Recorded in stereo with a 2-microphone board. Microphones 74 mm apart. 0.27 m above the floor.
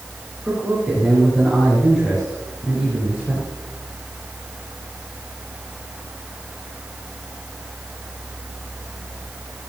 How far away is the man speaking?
About 4 m.